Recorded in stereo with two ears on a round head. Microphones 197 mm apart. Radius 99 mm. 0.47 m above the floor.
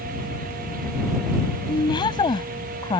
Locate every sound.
1.7 s a woman speaking: 20° left (ahead or behind)